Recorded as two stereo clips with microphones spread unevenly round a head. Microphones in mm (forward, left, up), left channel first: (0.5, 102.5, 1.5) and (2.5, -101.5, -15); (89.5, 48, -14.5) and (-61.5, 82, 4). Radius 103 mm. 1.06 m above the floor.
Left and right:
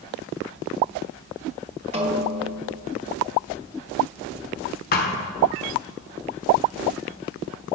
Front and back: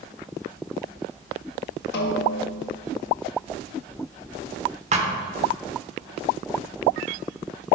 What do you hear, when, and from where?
1.9 s a snare drum: 30° right, 1.1 m
4.9 s a thud: 130° left, 1.3 m